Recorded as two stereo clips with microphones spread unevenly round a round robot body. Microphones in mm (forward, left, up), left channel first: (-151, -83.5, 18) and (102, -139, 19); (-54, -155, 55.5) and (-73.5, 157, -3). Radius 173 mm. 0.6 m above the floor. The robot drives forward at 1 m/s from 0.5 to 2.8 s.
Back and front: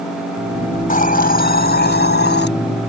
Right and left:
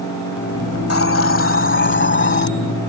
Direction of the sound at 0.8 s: 135° right.